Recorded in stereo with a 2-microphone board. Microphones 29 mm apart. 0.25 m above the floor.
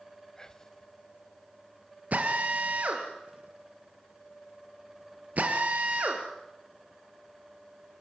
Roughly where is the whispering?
Left.